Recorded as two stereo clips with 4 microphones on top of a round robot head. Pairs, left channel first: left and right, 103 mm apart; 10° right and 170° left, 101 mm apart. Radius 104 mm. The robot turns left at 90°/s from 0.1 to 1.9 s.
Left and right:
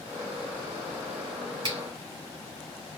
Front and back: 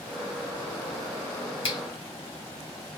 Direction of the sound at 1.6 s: 45° right.